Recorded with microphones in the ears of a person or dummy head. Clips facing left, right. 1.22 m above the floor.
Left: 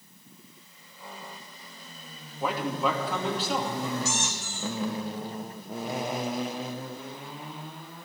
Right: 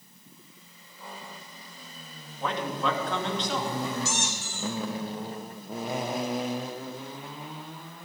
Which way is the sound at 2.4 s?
10° left (ahead or behind).